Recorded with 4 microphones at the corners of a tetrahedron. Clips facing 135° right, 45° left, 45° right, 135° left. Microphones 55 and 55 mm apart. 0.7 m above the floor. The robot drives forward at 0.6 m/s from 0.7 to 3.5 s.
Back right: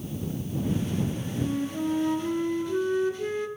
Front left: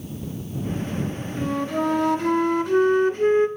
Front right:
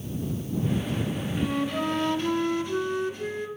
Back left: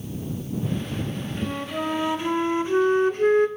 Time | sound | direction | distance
1.4 | a flute | 45° left | 1.6 m